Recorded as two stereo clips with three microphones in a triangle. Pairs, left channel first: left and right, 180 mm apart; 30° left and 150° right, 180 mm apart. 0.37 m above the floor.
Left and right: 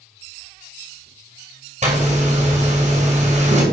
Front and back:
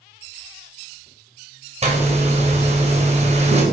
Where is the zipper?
115° right, 2 m.